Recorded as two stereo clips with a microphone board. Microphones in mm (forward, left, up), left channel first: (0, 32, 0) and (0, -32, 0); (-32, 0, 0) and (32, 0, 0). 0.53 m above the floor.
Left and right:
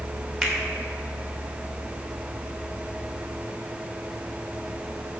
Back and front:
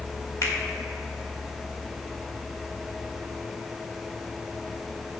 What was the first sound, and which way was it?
A finger snap, 175° right.